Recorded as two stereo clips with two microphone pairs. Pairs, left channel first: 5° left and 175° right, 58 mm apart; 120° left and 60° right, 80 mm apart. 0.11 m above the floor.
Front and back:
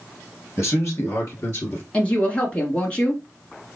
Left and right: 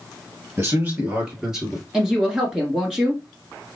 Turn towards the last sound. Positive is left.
turn(degrees=5)